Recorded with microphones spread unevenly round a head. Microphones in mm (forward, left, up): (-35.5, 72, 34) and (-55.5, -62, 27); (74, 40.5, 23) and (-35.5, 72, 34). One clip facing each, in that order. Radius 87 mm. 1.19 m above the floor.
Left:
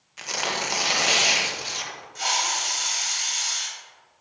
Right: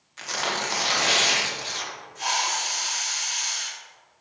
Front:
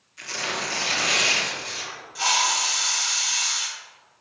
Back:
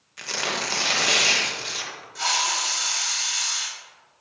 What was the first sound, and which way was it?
Tearing paper, 155° left.